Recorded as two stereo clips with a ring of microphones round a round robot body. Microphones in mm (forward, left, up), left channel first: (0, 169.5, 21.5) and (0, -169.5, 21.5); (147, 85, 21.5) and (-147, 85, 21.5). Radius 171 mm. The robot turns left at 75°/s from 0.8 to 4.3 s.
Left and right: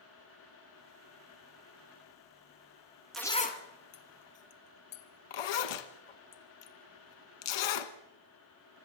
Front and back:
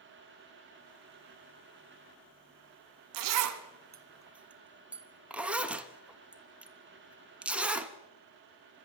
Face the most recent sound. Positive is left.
turn(degrees=95)